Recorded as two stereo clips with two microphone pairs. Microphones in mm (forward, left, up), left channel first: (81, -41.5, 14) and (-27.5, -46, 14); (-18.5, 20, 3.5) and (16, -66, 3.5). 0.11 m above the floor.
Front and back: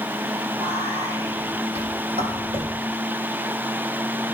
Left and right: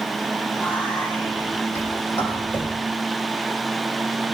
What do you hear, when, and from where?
0.5 s whispering: straight behind, 4.5 m